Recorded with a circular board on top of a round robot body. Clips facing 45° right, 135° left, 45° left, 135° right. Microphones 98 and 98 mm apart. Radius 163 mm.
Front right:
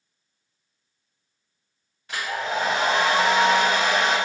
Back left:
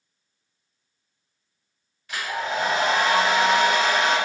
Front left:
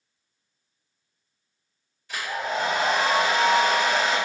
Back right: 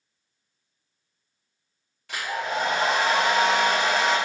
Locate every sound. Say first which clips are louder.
2.1 s a hair dryer: even, even; 105° right, 1.1 m